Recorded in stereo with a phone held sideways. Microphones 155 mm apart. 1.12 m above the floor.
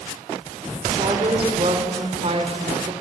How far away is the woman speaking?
About 3 m.